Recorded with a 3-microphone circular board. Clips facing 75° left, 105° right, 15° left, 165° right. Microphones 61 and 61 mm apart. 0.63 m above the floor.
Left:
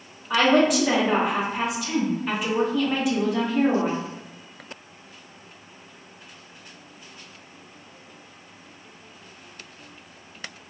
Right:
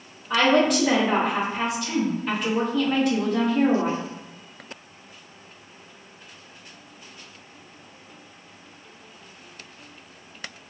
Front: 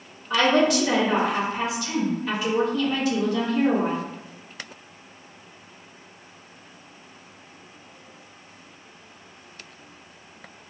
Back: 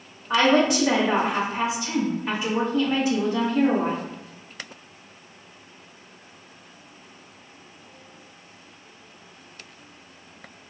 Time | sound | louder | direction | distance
0.3 | a woman speaking | left 1 dB, back 1 dB | 155° left | 1.1 m